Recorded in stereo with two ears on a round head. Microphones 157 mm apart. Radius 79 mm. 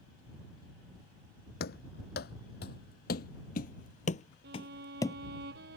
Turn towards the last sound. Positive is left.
turn(degrees=-70)  # may be behind; listen again after turning